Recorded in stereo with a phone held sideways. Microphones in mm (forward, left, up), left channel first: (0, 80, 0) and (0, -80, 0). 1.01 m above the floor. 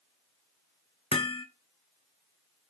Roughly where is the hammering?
Left.